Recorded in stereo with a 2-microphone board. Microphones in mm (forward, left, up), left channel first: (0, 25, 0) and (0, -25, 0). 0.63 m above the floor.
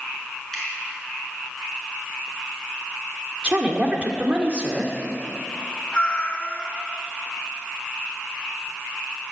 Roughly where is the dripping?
Centre.